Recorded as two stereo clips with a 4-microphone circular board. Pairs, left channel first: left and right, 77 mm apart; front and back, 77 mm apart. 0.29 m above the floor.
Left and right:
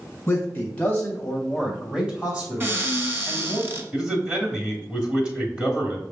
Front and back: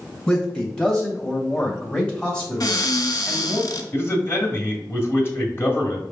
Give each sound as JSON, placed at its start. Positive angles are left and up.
{"t": 0.3, "sound": "a man speaking", "azimuth_deg": 60, "distance_m": 1.5}
{"t": 2.6, "sound": "a cupboard door", "azimuth_deg": -30, "distance_m": 0.8}
{"t": 3.9, "sound": "a man speaking", "azimuth_deg": -25, "distance_m": 1.5}